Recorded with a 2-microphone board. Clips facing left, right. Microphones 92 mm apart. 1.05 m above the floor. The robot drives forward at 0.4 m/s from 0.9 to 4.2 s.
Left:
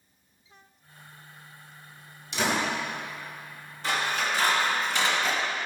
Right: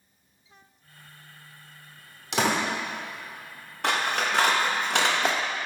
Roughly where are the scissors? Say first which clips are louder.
Right 2 dB; right.